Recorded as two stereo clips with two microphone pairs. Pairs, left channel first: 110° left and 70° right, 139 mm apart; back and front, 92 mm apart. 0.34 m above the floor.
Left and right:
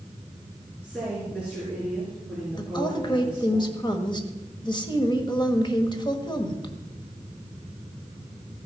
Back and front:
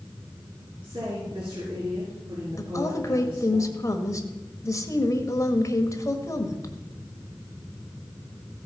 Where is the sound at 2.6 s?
150° left, 1.3 m.